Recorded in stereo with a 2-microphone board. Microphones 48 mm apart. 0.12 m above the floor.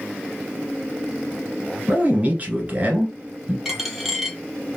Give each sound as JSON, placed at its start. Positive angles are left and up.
{"t": 1.9, "sound": "a man speaking", "side_deg": -35, "distance_m": 1.2}
{"t": 3.6, "sound": "a dropped coin", "side_deg": -5, "distance_m": 0.8}